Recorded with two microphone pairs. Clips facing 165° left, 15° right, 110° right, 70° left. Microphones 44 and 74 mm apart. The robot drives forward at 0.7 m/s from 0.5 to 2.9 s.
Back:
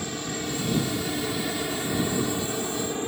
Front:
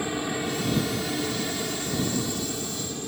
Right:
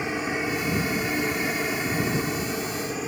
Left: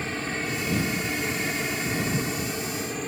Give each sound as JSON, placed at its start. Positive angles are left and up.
{"t": 0.0, "sound": "a helicopter", "azimuth_deg": -60}